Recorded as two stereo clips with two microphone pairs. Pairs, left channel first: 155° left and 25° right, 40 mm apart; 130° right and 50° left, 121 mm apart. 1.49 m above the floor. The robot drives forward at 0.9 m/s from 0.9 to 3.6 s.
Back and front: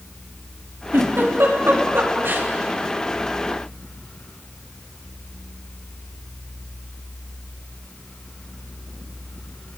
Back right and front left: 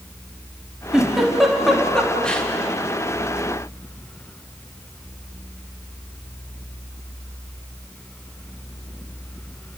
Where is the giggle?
35° right, 4 m; by 2.5 s 50° right, 3 m.